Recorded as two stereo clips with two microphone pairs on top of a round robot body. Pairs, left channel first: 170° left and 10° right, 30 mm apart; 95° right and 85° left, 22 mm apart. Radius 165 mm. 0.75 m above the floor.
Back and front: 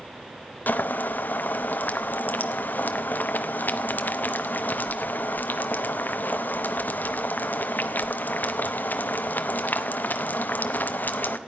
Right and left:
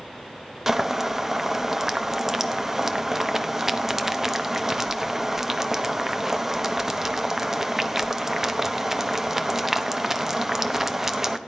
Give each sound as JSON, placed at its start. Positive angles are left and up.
{"t": 0.7, "sound": "boiling", "azimuth_deg": 155, "distance_m": 0.8}